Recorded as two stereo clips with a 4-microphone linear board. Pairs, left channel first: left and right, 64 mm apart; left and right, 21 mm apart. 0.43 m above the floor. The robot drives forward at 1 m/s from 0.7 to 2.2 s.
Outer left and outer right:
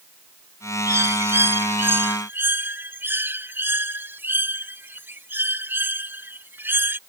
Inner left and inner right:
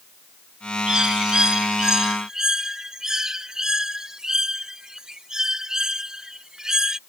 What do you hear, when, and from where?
0.9 s a bird: 50° right (ahead or behind); by 7.0 s 35° right (ahead or behind)